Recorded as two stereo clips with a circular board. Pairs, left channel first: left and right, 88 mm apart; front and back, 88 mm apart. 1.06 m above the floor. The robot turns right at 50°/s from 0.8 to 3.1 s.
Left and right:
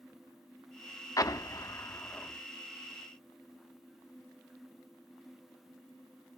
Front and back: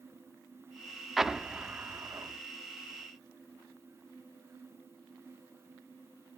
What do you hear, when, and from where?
1.2 s an explosion: 95° left, 0.6 m; by 2.4 s 155° left, 0.6 m